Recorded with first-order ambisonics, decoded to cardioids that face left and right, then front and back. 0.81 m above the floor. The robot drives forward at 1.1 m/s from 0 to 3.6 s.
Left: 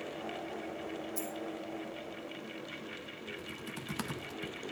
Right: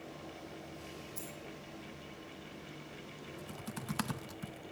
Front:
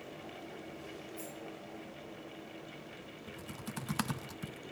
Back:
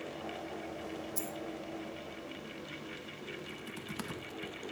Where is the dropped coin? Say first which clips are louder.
Left 7 dB, back 5 dB; 165° left, 3 m.